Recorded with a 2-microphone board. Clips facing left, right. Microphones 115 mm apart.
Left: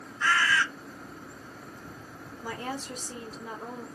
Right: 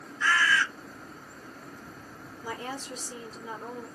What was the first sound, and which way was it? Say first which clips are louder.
A bird: even; 55° left (ahead or behind).